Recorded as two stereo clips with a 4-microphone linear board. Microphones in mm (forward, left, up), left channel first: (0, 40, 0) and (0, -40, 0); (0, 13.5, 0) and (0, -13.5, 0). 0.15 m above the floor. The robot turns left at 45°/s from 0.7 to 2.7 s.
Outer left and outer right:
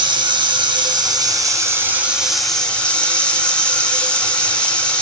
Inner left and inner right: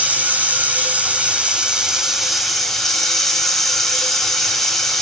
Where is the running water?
105° right, 0.7 m; by 5.0 s 165° left, 0.7 m.